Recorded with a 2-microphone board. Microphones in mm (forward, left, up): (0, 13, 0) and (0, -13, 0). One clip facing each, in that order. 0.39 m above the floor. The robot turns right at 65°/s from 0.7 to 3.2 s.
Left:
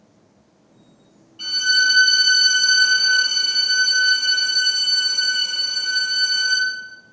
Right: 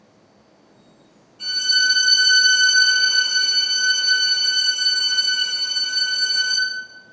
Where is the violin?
110° left, 1.5 m; by 6.6 s 130° right, 1.5 m.